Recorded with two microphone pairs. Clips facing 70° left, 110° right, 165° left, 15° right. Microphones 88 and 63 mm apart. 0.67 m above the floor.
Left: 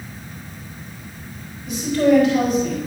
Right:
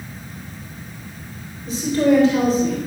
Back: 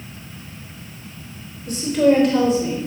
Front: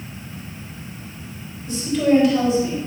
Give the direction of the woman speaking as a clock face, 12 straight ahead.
6 o'clock.